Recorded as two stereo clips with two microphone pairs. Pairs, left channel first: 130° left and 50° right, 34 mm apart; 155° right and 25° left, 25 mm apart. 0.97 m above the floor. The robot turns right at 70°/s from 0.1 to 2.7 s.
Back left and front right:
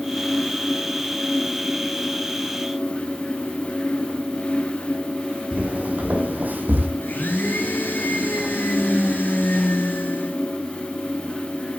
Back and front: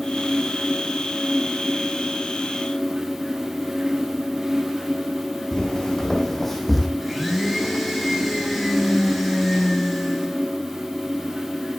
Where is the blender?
110° left, 8 m.